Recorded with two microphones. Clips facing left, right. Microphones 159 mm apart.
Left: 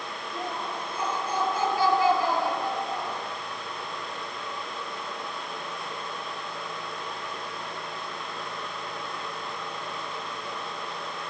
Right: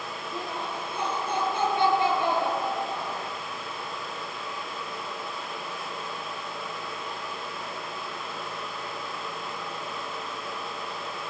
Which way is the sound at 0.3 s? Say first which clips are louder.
Left 1 dB; 30° right (ahead or behind).